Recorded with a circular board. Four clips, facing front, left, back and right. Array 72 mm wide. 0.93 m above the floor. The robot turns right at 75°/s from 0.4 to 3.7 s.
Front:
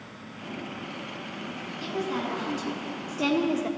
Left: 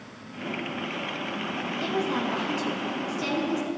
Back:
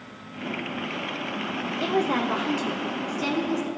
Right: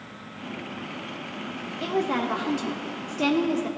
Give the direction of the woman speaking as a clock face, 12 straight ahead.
6 o'clock.